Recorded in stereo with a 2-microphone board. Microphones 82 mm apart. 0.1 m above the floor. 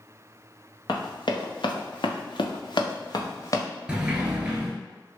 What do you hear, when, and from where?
0.9 s running footsteps: 60° left (ahead or behind), 1.2 m; by 3.6 s 40° left (ahead or behind), 1.1 m
3.9 s a sliding door: 10° right (ahead or behind), 0.7 m